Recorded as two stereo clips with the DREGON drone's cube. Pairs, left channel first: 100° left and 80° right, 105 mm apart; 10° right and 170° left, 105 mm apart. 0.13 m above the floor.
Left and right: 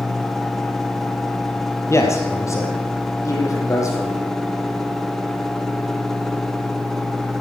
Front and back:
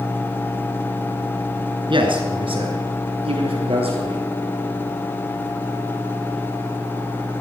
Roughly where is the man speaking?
Behind left.